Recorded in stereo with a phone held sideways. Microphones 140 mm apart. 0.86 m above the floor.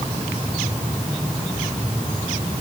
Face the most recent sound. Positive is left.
No sound to turn to.